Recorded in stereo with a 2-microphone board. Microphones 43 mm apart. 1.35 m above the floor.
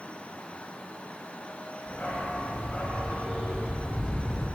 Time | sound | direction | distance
1.9 | a dog barking | 45° left (ahead or behind) | 3.5 m